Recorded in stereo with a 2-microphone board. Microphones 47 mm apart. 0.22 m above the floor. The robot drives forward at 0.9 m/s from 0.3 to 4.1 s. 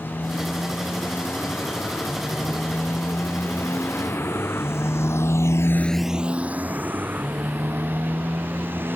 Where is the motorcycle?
50° left (ahead or behind); by 9.0 s 45° right (ahead or behind).